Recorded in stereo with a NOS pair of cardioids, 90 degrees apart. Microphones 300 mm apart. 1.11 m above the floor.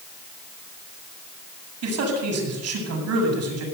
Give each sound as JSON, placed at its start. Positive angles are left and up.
{"t": 1.8, "sound": "a man speaking", "azimuth_deg": -60, "distance_m": 7.5}